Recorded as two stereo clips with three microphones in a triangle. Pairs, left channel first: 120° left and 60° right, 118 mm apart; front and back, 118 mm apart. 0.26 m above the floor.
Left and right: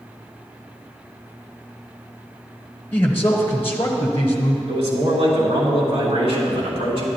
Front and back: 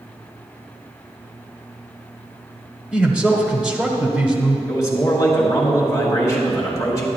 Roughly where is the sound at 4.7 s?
Ahead right.